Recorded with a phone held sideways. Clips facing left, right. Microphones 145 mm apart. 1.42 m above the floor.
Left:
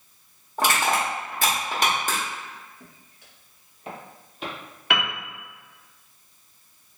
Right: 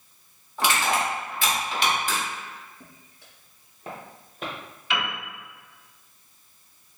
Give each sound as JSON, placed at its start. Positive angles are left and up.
{"t": 0.6, "sound": "crushing", "side_deg": 45, "distance_m": 1.0}
{"t": 2.8, "sound": "footsteps", "side_deg": -25, "distance_m": 1.5}
{"t": 4.9, "sound": "a piano", "side_deg": 65, "distance_m": 0.8}